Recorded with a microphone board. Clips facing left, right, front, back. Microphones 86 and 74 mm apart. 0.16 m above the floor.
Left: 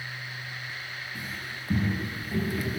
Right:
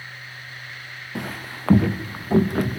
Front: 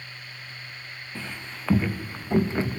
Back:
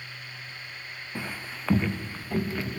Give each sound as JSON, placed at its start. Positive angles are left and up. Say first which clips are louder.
{"t": 1.1, "sound": "footsteps", "louder": "right 6 dB, back 2 dB", "azimuth_deg": -105, "distance_m": 1.1}